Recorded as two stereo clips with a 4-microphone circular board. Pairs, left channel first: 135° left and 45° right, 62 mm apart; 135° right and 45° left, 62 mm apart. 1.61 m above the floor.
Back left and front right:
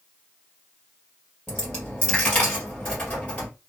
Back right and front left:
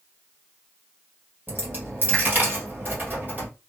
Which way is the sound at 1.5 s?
80° left.